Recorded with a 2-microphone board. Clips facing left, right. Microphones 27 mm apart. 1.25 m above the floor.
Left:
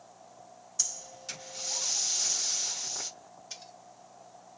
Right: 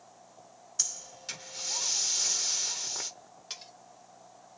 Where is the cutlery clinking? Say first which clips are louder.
Right 3 dB; 75° right (ahead or behind), 2 m.